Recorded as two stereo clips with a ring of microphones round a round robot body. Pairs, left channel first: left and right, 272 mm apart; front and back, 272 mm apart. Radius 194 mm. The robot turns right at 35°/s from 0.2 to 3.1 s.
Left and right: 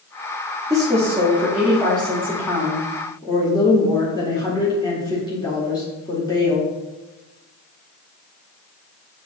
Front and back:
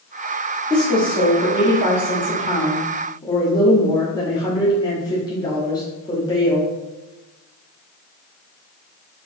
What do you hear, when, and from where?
0.7 s a woman speaking: 40° right, 1.2 m; by 6.7 s 45° left, 1.2 m